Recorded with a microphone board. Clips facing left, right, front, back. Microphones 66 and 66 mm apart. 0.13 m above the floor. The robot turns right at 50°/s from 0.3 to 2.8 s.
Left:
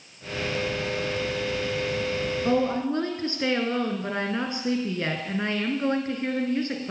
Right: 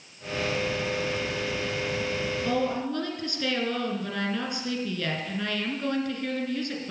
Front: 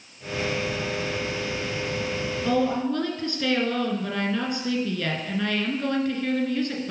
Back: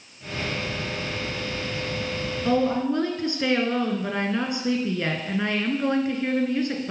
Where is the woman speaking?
110° left, 1.5 m; by 6.9 s 130° left, 1.5 m.